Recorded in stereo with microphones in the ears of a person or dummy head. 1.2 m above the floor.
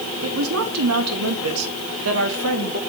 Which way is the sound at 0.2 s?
60° right (ahead or behind).